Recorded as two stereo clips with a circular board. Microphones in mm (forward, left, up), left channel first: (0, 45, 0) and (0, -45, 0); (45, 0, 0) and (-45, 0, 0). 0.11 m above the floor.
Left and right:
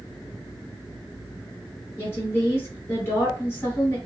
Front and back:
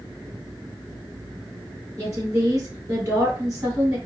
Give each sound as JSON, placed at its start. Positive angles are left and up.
{"t": 2.0, "sound": "a woman speaking", "azimuth_deg": 145, "distance_m": 2.5}